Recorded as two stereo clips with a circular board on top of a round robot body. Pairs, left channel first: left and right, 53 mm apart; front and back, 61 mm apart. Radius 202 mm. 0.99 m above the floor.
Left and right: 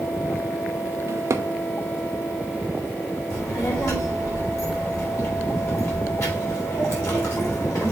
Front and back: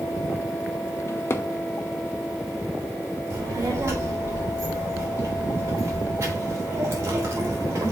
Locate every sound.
1.1 s a drawer: 50° right, 0.6 m
3.3 s a child speaking: 130° left, 3.5 m